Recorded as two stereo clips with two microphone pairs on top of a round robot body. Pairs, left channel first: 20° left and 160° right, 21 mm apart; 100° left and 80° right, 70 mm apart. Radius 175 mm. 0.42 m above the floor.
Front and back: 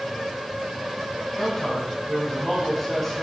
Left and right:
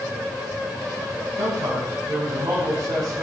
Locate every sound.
1.4 s a man speaking: 60° right, 5 m